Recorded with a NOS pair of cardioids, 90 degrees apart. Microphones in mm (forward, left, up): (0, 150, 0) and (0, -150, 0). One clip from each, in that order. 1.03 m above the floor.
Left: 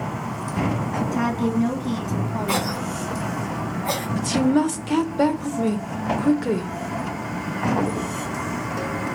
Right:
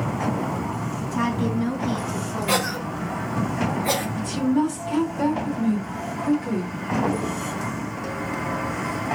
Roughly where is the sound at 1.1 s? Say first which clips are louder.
Right 1 dB; ahead.